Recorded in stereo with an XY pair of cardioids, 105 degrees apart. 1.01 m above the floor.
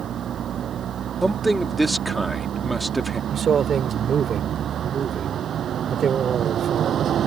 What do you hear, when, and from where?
0.0 s a vehicle: 55° right
1.2 s a man speaking: 15° right
3.3 s a man speaking: 50° right